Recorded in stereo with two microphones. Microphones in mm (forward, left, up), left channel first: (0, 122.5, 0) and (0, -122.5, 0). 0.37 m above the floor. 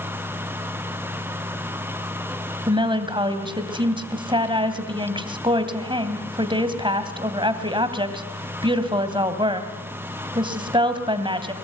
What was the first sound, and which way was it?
A woman speaking, 20° right (ahead or behind).